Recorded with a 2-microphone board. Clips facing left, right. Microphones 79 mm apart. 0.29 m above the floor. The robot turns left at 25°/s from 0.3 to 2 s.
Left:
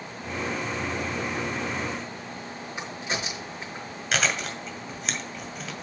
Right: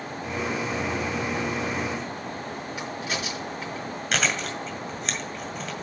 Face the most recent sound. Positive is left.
turn(degrees=0)  # may be behind; listen again after turning